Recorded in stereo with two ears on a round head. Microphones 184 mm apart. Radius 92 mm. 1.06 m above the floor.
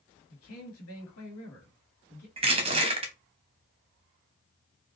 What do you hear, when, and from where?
0.3 s a man speaking: 80° left, 2.5 m
2.4 s crushing: 30° right (ahead or behind), 1.0 m